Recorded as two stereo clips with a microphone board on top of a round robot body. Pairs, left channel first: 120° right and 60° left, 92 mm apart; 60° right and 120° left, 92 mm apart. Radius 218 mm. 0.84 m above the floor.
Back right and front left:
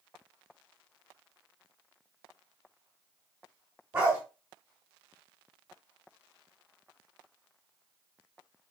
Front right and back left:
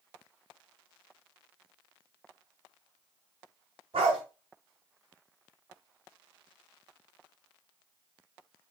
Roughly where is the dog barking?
Behind left.